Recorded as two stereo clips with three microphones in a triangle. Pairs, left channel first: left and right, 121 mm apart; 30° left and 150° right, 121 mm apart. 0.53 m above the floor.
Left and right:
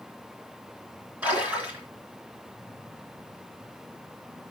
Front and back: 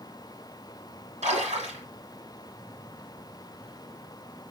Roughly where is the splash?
Behind.